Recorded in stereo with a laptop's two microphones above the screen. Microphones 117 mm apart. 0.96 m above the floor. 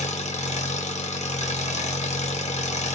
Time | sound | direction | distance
0.0 | an engine running | 75° left (ahead or behind) | 1.3 m